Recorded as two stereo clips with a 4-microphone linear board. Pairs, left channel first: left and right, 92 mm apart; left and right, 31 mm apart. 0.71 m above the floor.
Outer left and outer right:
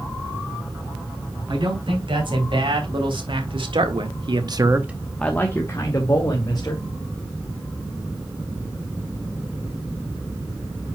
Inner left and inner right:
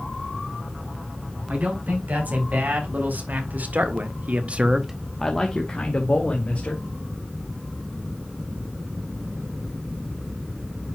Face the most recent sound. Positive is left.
turn(degrees=45)  # may be behind; listen again after turning